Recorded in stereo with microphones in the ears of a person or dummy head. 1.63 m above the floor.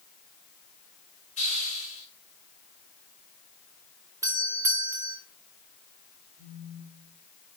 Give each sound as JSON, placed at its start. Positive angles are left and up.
{"t": 1.4, "sound": "a hiss", "side_deg": 40, "distance_m": 5.5}
{"t": 4.2, "sound": "a doorbell", "side_deg": -15, "distance_m": 1.2}
{"t": 6.4, "sound": "a phone buzzing", "side_deg": 40, "distance_m": 5.5}